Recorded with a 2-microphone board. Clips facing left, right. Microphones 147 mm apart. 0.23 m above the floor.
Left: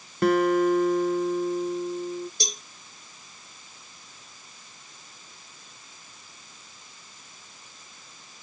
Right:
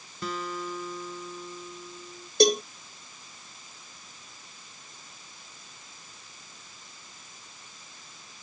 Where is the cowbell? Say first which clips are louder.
Right 17 dB; 65° right (ahead or behind).